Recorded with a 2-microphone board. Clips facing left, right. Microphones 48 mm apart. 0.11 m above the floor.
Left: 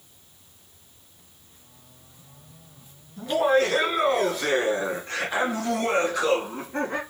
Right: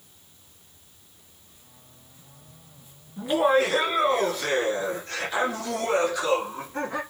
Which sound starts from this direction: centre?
Laughter, at 3.2 s.